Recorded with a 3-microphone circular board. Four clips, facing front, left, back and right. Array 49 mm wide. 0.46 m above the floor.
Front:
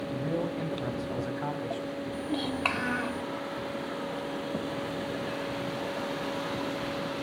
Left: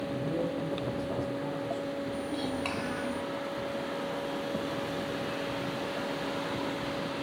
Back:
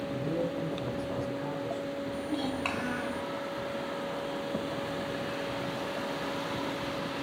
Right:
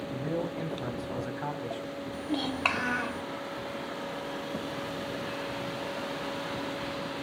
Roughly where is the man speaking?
Ahead right.